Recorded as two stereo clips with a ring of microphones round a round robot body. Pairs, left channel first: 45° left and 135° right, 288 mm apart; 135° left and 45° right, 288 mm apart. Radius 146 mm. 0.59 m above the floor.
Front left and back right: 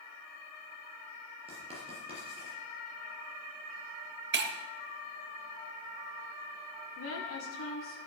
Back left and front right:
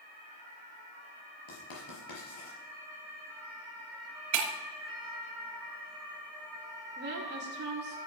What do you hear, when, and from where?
1.5 s writing: 155° left, 4.5 m
4.3 s breaking glass: 80° right, 1.4 m
7.0 s a woman speaking: 5° left, 2 m